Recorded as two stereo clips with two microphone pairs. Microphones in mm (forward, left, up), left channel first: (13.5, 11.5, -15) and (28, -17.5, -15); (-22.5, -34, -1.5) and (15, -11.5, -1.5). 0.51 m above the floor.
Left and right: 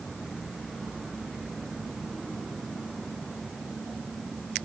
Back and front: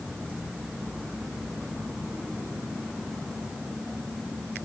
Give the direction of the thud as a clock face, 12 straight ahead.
No thud in this recording.